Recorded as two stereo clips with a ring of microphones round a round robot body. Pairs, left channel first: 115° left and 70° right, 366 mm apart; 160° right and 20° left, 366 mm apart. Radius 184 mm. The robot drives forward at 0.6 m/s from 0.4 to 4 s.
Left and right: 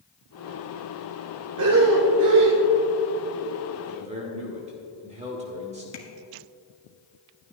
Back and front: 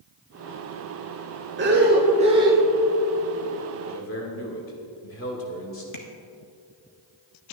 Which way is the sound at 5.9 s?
165° left.